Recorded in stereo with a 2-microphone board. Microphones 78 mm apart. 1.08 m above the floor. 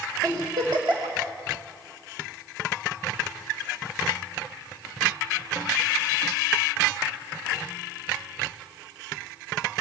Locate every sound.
0.2 s a giggle: 65° right (ahead or behind), 5 m